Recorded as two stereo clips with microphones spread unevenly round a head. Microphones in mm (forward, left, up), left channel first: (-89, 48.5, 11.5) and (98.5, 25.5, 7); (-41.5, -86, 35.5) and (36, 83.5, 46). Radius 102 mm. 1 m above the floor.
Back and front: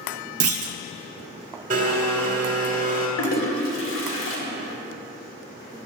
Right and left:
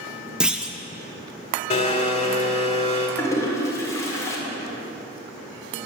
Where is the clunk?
20° right, 0.5 m.